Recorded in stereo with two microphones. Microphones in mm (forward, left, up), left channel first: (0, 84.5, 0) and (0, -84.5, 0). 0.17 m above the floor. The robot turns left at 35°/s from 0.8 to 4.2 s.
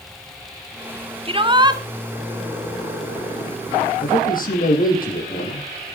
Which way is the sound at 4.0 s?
65° left (ahead or behind).